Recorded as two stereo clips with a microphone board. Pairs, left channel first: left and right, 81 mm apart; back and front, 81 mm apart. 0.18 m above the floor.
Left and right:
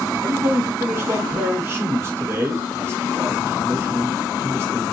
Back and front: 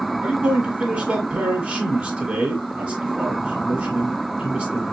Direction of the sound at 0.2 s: 60° right.